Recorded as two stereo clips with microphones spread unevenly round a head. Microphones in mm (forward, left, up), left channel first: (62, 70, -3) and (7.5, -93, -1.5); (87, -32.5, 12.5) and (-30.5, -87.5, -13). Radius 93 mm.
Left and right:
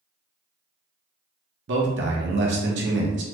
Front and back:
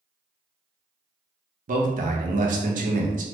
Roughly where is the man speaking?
Behind right.